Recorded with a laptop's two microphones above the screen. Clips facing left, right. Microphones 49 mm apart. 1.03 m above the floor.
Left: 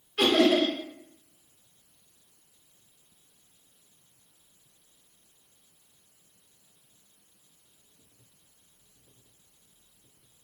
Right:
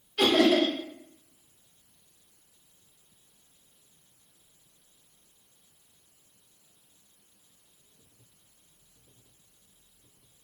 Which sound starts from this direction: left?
Laughter, at 0.2 s.